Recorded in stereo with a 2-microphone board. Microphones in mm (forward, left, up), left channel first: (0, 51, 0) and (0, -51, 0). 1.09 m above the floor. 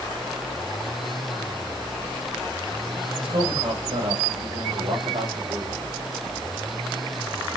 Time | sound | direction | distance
3.2 | a man speaking | 75° right (ahead or behind) | 3.5 m